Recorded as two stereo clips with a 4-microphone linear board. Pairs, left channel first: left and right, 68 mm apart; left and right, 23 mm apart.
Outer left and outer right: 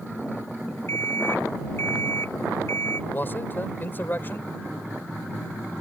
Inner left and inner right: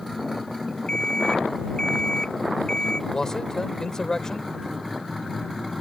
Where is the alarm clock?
40° left (ahead or behind).